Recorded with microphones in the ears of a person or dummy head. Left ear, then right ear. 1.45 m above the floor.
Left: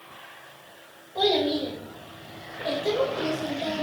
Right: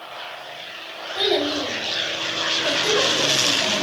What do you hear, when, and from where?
1.1 s a child speaking: 65° right (ahead or behind), 3.5 m